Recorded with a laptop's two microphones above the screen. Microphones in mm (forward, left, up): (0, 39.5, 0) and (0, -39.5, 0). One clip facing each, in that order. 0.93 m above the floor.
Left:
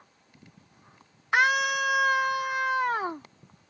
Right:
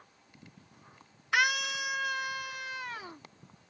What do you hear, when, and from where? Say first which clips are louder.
1.3 s a scream: left 6 dB; 30° left (ahead or behind); by 3.3 s 70° left (ahead or behind)